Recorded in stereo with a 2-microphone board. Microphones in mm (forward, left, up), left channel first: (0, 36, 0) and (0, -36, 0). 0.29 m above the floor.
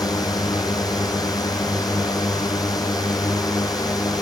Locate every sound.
0.0 s a drone: 65° left (ahead or behind)